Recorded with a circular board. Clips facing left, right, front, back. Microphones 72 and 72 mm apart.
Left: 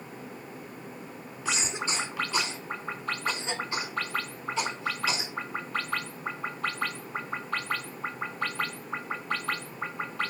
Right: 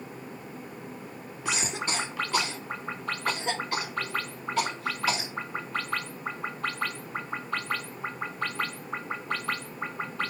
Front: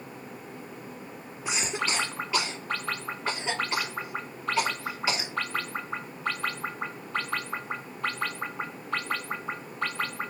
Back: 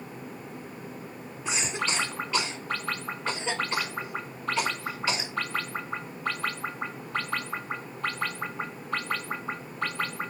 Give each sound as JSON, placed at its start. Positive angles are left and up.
{"t": 1.4, "sound": "a cough", "azimuth_deg": -80, "distance_m": 2.0}